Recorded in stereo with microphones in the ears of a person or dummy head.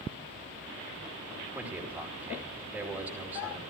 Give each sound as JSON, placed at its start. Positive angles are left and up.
{"t": 1.6, "sound": "a man speaking", "side_deg": -10, "distance_m": 2.5}